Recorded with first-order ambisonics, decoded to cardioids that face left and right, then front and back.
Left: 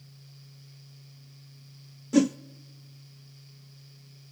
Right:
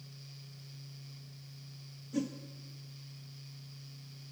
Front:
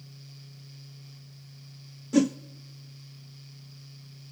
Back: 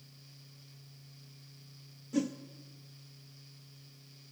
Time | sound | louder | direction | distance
2.1 | a whoosh | left 14 dB, front 10 dB | 55° left | 0.5 m